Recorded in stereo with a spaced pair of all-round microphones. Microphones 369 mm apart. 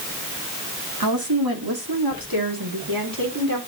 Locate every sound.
1.0 s a woman speaking: 70° right (ahead or behind), 2.5 m; by 3.6 s 60° right (ahead or behind), 4 m